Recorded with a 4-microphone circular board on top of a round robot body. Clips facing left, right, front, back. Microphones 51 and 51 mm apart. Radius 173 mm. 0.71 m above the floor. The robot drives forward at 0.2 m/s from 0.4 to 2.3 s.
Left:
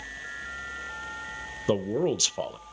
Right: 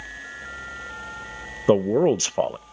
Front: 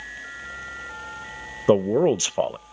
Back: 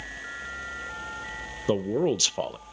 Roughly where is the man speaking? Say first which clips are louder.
Right 8 dB, front 7 dB; ahead right.